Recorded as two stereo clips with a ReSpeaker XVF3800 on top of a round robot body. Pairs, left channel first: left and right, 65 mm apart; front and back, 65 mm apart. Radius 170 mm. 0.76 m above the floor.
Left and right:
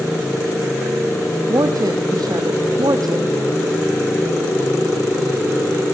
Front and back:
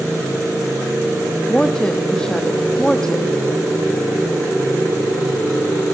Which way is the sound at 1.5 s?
75° right.